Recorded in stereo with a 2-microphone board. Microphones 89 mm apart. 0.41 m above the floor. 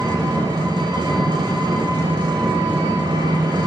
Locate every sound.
0.0 s an engine running: 60° right (ahead or behind), 1.0 m